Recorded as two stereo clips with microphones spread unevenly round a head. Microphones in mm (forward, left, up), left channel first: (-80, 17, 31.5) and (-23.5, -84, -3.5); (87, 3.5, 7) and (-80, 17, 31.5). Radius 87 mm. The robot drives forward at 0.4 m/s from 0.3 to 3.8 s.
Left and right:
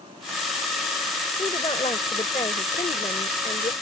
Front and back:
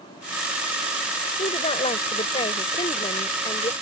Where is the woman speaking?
55° left; by 3.7 s 65° left.